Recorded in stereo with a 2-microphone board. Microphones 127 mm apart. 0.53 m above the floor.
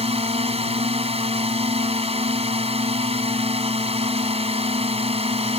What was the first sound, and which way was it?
A drone, 55° right (ahead or behind).